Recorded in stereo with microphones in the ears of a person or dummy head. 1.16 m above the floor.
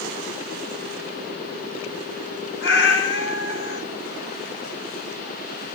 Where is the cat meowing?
70° left (ahead or behind), 1.6 m.